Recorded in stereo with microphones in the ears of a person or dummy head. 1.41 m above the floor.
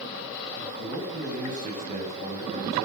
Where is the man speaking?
40° right (ahead or behind), 8.5 m.